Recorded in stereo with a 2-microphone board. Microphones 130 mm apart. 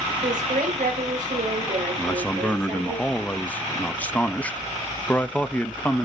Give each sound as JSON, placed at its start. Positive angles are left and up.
{"t": 0.2, "sound": "a woman speaking", "side_deg": -75, "distance_m": 4.0}
{"t": 2.0, "sound": "a man speaking", "side_deg": 10, "distance_m": 0.9}